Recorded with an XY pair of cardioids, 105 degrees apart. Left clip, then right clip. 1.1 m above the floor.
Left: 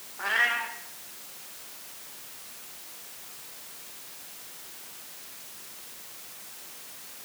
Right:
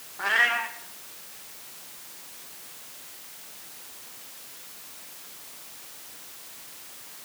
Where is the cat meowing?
20° right, 1.0 m.